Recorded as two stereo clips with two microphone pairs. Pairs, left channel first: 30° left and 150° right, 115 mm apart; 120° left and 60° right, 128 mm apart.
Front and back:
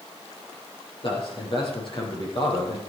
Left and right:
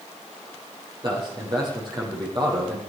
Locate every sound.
1.0 s a man speaking: 10° right, 6 m